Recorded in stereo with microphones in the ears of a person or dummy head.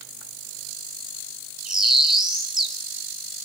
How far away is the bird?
About 2 m.